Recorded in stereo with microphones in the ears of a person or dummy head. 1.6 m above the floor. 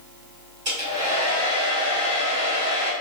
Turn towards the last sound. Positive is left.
turn(degrees=-30)  # may be behind; listen again after turning